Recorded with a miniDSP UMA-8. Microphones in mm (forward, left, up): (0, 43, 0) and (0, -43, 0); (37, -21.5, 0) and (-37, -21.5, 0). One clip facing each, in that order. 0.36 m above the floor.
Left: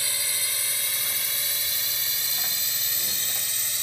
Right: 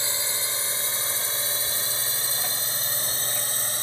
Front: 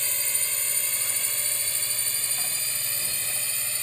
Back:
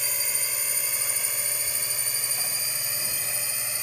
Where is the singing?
No singing in this recording.